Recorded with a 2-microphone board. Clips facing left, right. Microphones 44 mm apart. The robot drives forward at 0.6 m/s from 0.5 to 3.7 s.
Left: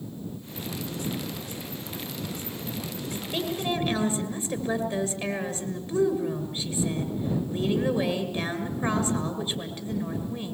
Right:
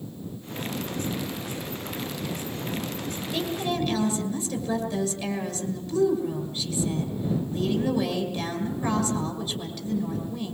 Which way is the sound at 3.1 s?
25° left (ahead or behind).